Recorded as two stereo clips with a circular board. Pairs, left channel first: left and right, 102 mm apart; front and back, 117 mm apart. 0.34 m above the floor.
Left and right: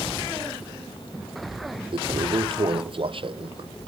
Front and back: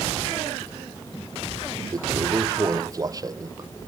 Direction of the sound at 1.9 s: 120° right.